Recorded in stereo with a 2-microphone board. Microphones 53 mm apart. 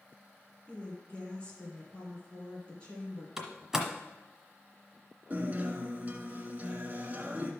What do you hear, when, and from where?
0.7 s a woman speaking: 25° left (ahead or behind), 2.5 m
3.4 s a door slam: 5° right (ahead or behind), 1.3 m
5.3 s a guitar: 30° right (ahead or behind), 1.2 m